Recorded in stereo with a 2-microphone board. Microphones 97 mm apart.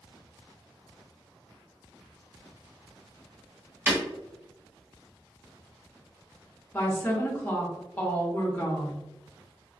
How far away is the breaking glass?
About 1.6 m.